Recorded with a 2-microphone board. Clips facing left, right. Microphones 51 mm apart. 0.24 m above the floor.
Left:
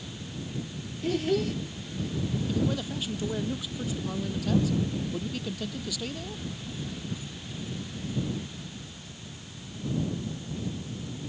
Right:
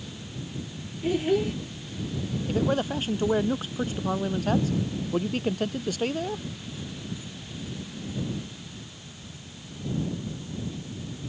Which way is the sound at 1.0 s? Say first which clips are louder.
Right 3 dB; 15° right (ahead or behind).